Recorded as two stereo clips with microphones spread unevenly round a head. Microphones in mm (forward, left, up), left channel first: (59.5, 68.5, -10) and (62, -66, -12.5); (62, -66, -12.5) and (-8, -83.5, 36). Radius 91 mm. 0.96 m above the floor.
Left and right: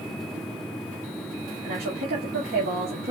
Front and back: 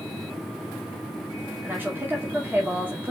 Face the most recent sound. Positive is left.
turn(degrees=-95)